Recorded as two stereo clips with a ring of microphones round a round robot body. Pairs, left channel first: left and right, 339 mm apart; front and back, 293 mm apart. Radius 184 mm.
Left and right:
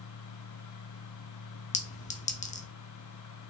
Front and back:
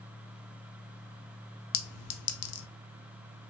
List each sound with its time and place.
1.7 s a clink: 25° left, 0.6 m